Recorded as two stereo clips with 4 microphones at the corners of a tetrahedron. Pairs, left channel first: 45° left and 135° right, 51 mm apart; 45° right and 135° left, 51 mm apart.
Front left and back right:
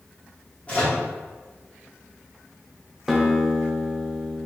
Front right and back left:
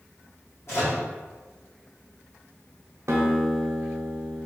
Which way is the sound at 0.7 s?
20° right.